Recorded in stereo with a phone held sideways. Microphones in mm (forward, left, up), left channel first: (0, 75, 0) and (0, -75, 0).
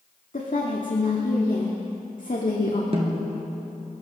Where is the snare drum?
45° right (ahead or behind), 2.5 m.